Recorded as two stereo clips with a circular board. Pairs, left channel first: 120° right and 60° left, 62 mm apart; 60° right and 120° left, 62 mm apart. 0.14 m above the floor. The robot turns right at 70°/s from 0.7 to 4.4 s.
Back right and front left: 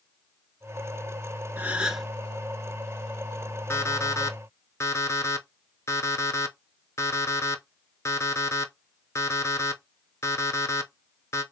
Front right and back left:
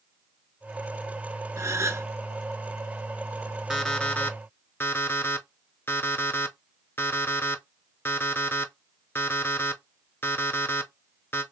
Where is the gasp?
115° left, 0.6 m; by 2.1 s 150° left, 0.6 m.